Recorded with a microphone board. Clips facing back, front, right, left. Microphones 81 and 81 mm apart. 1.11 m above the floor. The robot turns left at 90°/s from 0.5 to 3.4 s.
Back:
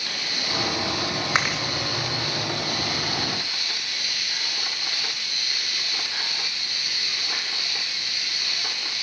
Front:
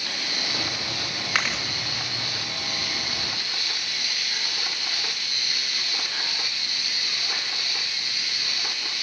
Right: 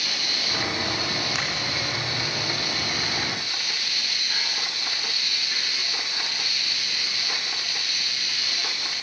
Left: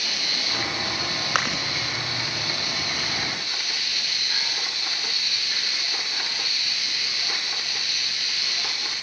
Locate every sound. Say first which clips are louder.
1.4 s chewing: back 1 dB, left 4 dB; 115° left, 3 m; by 1.6 s 90° left, 3 m